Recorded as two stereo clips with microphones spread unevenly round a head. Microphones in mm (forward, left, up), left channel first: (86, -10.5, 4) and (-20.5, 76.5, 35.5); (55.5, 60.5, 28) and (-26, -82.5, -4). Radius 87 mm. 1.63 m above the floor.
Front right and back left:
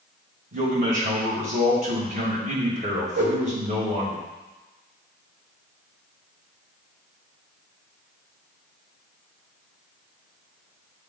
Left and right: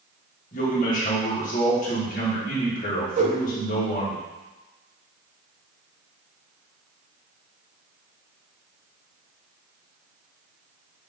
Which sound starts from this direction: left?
A man speaking, at 0.5 s.